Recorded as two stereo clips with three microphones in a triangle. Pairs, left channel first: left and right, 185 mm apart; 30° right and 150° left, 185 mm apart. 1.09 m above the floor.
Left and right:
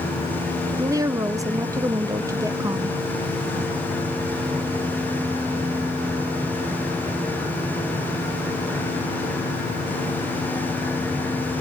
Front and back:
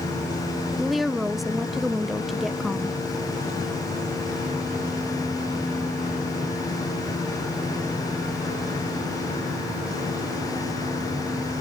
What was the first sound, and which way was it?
A woman speaking, 120° right.